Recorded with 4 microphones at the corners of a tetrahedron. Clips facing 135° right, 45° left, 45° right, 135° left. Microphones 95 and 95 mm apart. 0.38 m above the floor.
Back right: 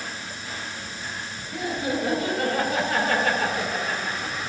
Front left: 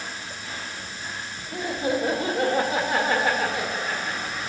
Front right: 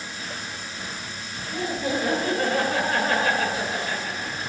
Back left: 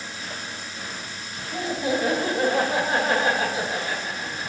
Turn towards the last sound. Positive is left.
turn(degrees=170)